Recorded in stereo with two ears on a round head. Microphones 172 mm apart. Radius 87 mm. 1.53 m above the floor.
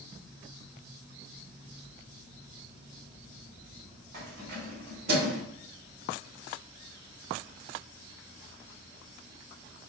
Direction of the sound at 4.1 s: 60° right (ahead or behind).